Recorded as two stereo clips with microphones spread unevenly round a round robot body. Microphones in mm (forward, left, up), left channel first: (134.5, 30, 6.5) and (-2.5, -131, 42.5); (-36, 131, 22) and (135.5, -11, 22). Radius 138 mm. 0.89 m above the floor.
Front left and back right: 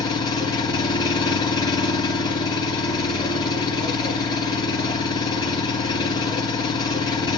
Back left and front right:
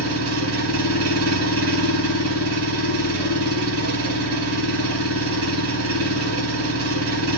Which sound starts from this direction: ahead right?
An engine running, at 0.0 s.